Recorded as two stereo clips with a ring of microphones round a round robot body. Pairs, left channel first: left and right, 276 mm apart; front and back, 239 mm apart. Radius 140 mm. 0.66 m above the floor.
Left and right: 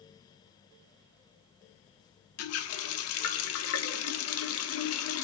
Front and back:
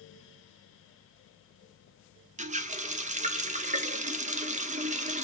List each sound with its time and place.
2.4 s a running tap: 120° left, 0.9 m